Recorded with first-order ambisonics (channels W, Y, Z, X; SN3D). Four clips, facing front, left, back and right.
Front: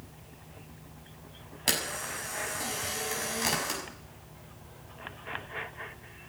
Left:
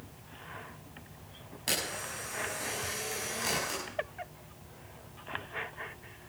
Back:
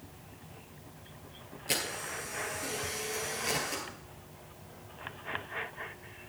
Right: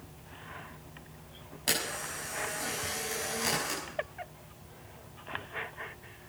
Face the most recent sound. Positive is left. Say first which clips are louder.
# right 1 dB, front 3 dB
turn(degrees=-10)